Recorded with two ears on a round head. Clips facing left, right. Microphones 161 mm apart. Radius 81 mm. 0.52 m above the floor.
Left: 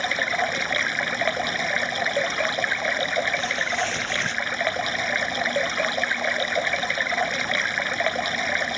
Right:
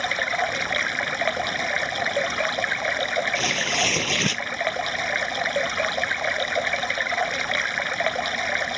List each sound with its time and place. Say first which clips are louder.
0.0 s running water: even; centre (ahead or behind)
3.4 s tearing paper: right 1 dB; 75° right (ahead or behind)